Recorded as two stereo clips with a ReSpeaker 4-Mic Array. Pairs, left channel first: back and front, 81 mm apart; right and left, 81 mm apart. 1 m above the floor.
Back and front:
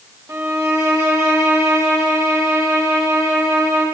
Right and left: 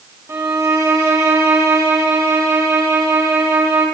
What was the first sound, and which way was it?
A violin, 50° left.